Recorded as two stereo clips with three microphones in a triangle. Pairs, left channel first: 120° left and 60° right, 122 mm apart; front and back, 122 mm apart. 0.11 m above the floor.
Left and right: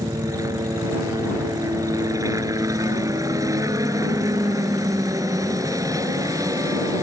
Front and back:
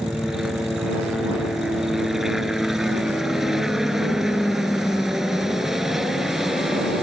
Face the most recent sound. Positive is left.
turn(degrees=-95)